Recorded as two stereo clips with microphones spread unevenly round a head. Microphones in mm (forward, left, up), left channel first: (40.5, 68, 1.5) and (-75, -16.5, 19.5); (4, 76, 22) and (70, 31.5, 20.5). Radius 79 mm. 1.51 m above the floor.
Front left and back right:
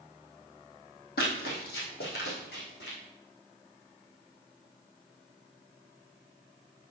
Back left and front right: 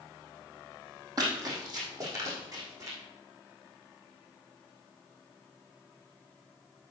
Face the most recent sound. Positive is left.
turn(degrees=5)